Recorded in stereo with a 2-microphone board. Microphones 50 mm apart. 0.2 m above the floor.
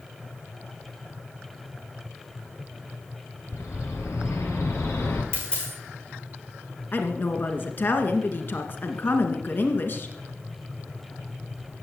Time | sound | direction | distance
3.5 | a bird | 75° left (ahead or behind) | 3 m
5.3 | a dropped coin | 20° left (ahead or behind) | 6 m
6.9 | a woman speaking | 45° left (ahead or behind) | 2 m